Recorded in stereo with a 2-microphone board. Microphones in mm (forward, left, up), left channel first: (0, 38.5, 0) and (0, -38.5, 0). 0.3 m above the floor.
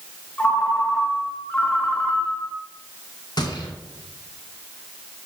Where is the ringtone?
15° left (ahead or behind), 2.5 m.